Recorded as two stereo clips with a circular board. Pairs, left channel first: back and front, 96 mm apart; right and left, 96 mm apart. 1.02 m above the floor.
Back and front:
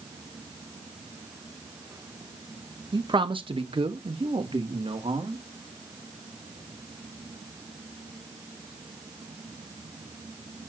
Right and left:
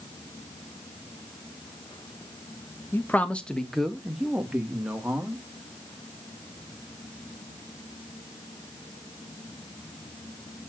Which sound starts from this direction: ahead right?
A man speaking, at 2.9 s.